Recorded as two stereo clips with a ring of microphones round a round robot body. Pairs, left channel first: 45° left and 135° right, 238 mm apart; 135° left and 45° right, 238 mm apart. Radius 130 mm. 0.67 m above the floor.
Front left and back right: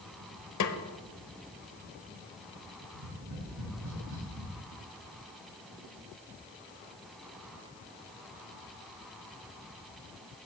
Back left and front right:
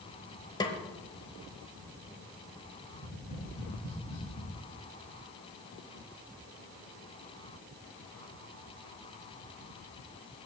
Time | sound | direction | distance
0.6 | a snare drum | 60° left | 0.8 m
2.9 | tapping | 170° right | 5 m